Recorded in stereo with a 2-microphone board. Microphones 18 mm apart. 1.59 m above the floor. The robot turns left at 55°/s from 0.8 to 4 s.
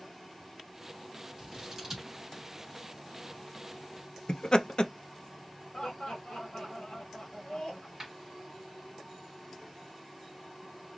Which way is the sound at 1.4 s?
40° right (ahead or behind).